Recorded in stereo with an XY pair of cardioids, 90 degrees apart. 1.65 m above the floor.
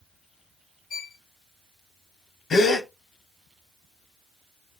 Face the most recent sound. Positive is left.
turn(degrees=65)